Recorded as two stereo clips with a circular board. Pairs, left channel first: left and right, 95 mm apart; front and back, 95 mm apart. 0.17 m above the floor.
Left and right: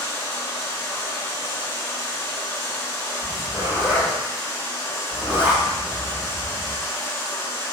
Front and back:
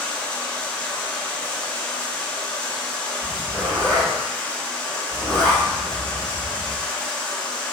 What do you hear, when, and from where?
0.0 s running water: 65° left, 0.7 m
3.2 s a zipper: 100° right, 1.7 m